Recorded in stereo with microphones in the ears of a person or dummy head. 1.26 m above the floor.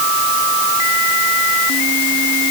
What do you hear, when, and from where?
Only background noise.